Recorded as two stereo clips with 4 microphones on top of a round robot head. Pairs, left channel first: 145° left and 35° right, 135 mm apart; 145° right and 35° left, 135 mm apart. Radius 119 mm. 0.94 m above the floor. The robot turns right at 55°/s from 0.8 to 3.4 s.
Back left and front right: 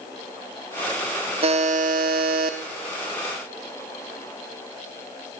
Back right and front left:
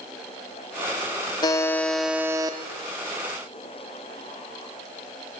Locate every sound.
1.4 s a buzzer: 85° right, 0.6 m; by 2.6 s 20° right, 0.6 m